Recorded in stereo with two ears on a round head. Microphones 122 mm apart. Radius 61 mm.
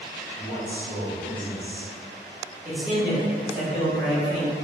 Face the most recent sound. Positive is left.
turn(degrees=-10)  # may be behind; listen again after turning